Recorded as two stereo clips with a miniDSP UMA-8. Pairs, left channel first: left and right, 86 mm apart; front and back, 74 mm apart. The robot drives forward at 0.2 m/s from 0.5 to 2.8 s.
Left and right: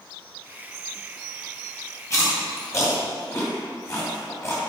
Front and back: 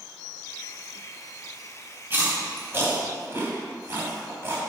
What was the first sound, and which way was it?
Chewing, 130° left.